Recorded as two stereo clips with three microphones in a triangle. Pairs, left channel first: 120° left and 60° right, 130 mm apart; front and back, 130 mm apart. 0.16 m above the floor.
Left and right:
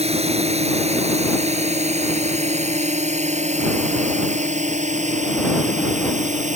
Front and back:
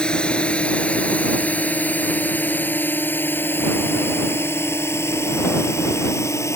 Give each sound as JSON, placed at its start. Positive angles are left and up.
{"t": 0.0, "sound": "a drone", "azimuth_deg": -80}